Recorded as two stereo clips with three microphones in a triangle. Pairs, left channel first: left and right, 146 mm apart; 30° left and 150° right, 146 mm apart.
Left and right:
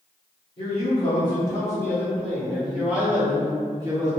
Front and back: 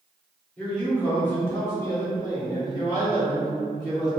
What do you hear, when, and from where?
0.6 s a man speaking: 110° left, 1.3 m; by 4.1 s 30° right, 1.7 m